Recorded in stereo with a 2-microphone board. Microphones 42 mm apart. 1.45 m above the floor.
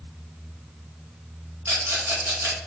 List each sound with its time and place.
1.6 s a rattle: 75° right (ahead or behind), 2.5 m